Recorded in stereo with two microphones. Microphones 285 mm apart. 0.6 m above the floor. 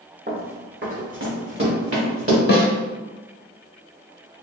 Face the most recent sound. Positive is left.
turn(degrees=35)  # may be behind; listen again after turning